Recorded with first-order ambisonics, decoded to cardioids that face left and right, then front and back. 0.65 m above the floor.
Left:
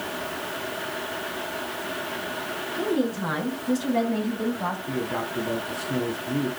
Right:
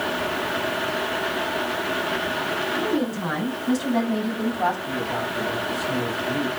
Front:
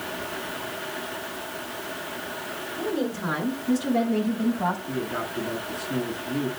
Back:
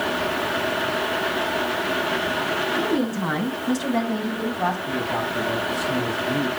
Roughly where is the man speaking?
Behind right.